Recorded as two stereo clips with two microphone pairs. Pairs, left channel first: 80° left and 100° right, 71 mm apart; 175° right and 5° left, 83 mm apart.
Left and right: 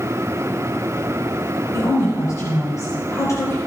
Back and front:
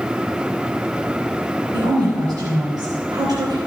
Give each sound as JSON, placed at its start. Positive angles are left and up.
{"t": 1.7, "sound": "a woman speaking", "azimuth_deg": 40, "distance_m": 4.0}